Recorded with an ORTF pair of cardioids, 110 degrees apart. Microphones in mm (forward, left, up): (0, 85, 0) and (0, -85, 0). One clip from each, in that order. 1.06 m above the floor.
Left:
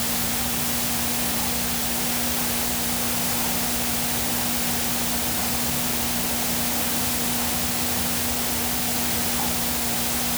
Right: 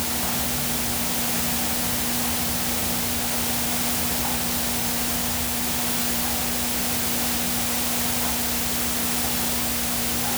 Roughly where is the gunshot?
No gunshot in this recording.